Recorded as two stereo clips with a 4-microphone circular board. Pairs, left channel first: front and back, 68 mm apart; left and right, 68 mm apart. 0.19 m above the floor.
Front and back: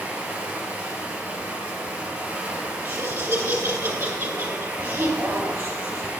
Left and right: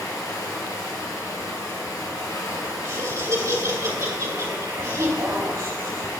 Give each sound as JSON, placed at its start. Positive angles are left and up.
{"t": 0.0, "sound": "running water", "azimuth_deg": 110, "distance_m": 2.0}
{"t": 2.8, "sound": "laughter", "azimuth_deg": -125, "distance_m": 3.0}